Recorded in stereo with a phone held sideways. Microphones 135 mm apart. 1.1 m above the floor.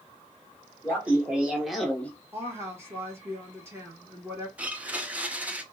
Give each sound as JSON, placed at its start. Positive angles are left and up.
{"t": 0.8, "sound": "laughter", "side_deg": -15, "distance_m": 1.4}
{"t": 2.3, "sound": "a woman speaking", "side_deg": -20, "distance_m": 1.4}
{"t": 4.6, "sound": "a blender", "side_deg": -10, "distance_m": 0.6}